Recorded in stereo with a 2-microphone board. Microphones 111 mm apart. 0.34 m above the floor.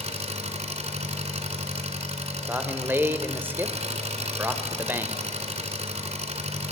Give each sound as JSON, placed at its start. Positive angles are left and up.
{"t": 0.0, "sound": "an engine running", "side_deg": -75, "distance_m": 2.0}
{"t": 2.5, "sound": "a man speaking", "side_deg": -20, "distance_m": 1.1}